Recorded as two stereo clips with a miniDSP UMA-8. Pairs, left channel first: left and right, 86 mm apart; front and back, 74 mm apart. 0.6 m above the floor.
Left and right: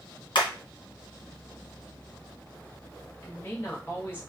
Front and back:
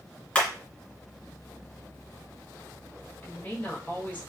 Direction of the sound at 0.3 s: 75° left.